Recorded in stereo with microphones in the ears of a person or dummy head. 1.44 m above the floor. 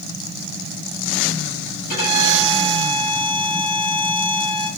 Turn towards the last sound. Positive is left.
turn(degrees=45)  # may be behind; listen again after turning